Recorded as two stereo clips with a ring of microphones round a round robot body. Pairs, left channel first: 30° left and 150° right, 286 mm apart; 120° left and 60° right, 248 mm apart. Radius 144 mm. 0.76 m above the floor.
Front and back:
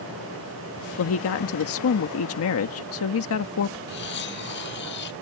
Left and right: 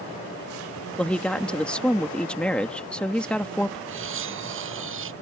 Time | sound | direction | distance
1.0 | a woman speaking | 35° left | ?
3.9 | cutlery clinking | 25° right | ?